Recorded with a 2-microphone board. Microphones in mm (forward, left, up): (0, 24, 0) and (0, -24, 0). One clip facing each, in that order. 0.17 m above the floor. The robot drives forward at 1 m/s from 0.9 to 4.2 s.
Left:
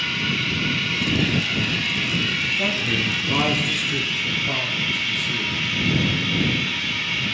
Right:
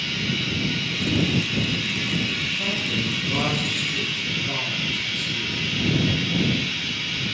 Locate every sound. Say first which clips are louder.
0.0 s running water: left 3 dB; 85° left, 4.5 m; by 7.3 s 55° left (ahead or behind), 5.5 m
2.5 s a man speaking: left 3 dB; 45° left (ahead or behind), 1.8 m; by 5.6 s 25° left (ahead or behind), 3 m